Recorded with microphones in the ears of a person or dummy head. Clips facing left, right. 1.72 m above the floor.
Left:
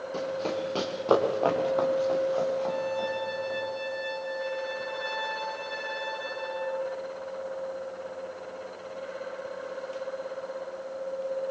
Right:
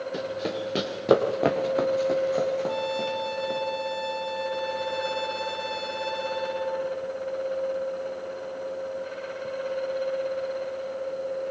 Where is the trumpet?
75° right (ahead or behind), 6.5 m.